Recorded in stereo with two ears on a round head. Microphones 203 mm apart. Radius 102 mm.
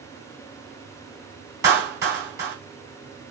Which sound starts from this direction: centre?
A clap, at 1.6 s.